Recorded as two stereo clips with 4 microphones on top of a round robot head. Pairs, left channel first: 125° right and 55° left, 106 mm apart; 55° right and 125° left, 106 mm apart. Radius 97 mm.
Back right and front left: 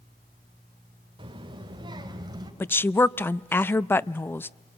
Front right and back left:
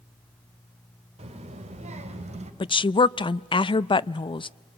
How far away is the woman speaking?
About 0.5 m.